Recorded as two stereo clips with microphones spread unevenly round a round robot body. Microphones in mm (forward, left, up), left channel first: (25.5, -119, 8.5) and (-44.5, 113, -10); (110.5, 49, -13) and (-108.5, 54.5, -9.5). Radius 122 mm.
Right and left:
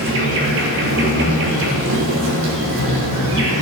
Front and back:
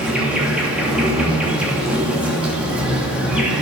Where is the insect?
95° left, 3 m.